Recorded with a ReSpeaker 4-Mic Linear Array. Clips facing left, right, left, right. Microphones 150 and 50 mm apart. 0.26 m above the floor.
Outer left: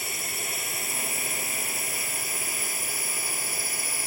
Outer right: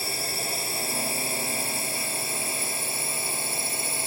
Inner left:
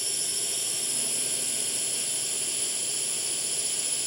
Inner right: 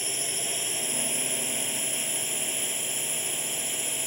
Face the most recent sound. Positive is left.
turn(degrees=-25)  # may be behind; listen again after turning